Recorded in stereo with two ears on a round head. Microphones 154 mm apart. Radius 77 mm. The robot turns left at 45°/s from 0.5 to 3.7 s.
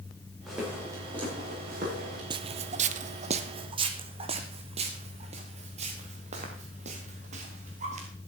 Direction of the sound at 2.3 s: 25° right (ahead or behind).